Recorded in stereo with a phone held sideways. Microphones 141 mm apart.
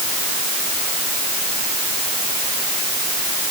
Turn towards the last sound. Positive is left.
No sound to turn to.